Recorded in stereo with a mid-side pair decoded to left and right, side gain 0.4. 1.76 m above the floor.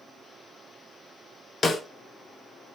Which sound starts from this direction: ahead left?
A snare drum, at 1.6 s.